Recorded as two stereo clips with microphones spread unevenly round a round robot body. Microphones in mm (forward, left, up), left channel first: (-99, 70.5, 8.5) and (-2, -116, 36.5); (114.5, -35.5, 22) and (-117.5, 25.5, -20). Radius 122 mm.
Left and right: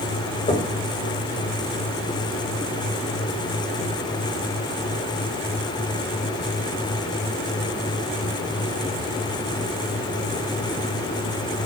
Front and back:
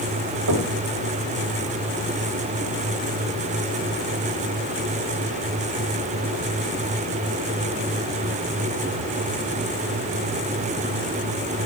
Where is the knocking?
175° left, 4 m.